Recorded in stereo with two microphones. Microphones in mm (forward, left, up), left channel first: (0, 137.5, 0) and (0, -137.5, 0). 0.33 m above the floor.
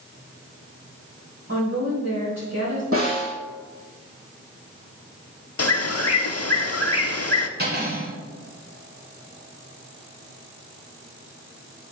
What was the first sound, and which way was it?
A woman speaking, 55° right (ahead or behind).